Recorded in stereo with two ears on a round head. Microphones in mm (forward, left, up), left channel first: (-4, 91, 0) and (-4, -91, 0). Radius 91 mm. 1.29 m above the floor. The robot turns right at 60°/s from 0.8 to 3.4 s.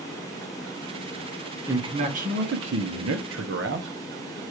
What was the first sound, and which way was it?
A man speaking, 165° right.